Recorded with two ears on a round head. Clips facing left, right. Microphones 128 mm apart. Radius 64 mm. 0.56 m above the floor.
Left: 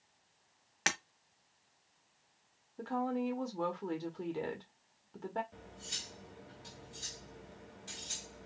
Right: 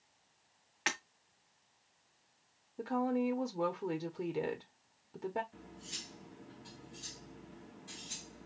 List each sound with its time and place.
0.9 s breaking glass: 50° left (ahead or behind), 1.3 m
2.8 s a woman speaking: 10° right (ahead or behind), 0.9 m
5.5 s cutlery clinking: 70° left (ahead or behind), 2 m